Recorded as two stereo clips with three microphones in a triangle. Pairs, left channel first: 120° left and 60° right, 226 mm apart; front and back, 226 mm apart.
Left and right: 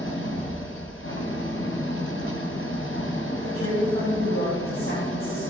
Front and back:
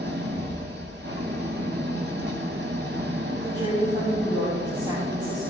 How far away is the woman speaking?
About 6 m.